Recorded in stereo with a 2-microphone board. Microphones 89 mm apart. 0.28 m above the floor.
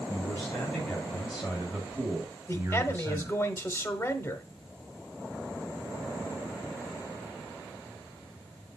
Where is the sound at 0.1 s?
25° left (ahead or behind), 1.7 m; by 3.4 s 40° right (ahead or behind), 2.5 m.